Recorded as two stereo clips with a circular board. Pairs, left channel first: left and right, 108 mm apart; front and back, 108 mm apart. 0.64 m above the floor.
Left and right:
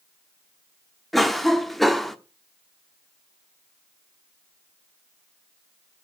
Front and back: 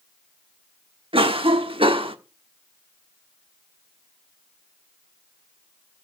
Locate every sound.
1.1 s a cough: 175° left, 1.1 m